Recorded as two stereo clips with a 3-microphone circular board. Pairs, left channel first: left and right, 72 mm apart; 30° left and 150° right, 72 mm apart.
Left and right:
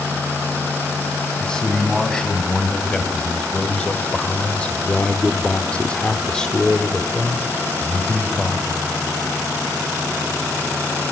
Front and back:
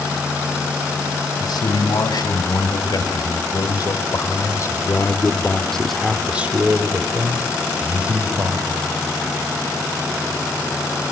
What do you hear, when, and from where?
1.4 s a man speaking: 10° left, 4 m; by 8.8 s straight behind, 3 m